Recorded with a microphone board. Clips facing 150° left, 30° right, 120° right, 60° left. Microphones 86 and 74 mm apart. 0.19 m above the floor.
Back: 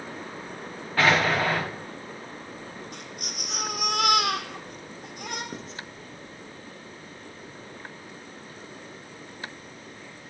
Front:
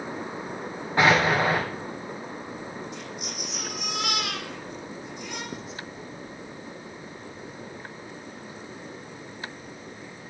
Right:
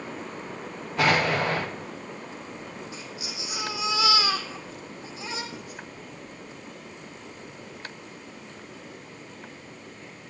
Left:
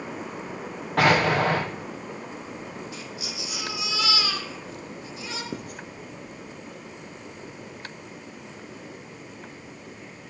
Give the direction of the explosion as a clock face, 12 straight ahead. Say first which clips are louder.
Front 2 dB, left 3 dB; 11 o'clock.